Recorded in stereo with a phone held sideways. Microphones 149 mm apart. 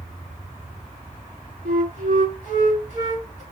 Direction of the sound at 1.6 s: 70° right (ahead or behind).